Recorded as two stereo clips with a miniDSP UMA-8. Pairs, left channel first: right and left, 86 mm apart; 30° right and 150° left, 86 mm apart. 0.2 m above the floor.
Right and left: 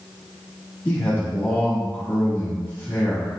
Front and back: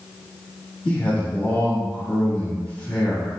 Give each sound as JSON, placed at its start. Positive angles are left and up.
{"t": 0.8, "sound": "a man speaking", "azimuth_deg": -80, "distance_m": 1.0}